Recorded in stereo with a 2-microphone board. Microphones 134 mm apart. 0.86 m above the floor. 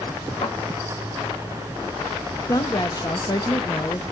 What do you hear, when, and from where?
0.4 s a thud: 50° left (ahead or behind), 8 m
2.5 s a woman speaking: 35° left (ahead or behind), 0.8 m